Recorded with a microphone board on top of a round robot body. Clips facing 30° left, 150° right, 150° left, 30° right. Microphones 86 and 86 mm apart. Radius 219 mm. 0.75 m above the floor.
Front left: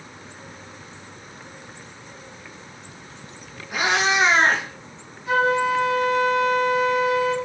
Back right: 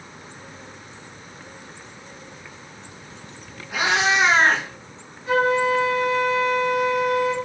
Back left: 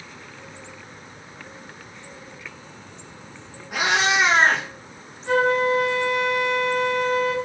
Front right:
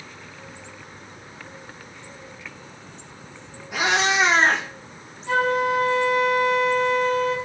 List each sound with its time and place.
3.7 s a cat meowing: 115° left, 1.0 m
5.3 s a flute: 160° left, 1.5 m